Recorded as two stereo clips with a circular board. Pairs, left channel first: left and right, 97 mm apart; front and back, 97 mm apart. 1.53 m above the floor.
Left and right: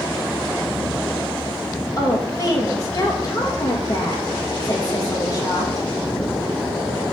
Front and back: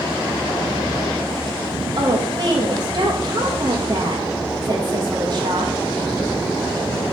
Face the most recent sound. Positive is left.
turn(degrees=140)